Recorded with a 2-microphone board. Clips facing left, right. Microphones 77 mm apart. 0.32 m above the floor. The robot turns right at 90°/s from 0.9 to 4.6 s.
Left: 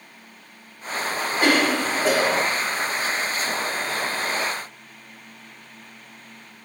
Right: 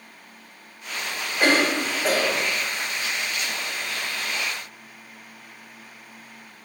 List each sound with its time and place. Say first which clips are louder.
1.4 s a cough: even; 60° right, 2 m; by 2.5 s 45° left, 2 m